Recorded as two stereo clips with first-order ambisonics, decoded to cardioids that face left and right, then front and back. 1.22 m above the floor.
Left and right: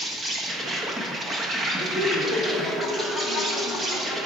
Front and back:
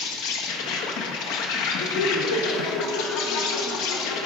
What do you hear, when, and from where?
0.0 s an insect: 20° right, 1.2 m
1.8 s laughter: straight ahead, 3.5 m